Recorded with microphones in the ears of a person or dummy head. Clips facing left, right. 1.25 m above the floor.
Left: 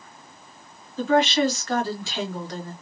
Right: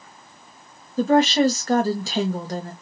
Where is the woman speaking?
25° right (ahead or behind), 1.0 m.